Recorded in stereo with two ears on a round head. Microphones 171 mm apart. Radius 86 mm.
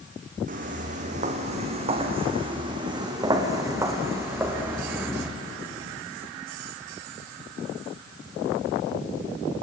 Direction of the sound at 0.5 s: 45° right (ahead or behind).